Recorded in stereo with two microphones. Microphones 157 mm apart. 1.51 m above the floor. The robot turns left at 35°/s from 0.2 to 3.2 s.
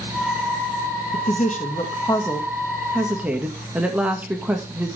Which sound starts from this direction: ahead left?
A woman speaking, at 1.1 s.